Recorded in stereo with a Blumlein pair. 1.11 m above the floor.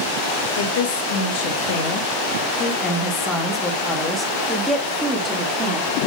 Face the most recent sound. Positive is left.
turn(degrees=-15)